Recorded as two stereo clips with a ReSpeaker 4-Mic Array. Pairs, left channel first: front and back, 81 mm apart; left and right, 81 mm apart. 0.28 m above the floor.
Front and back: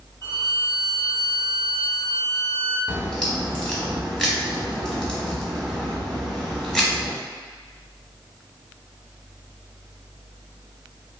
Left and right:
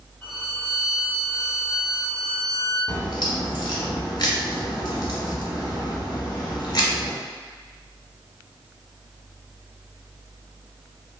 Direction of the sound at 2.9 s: 80° left.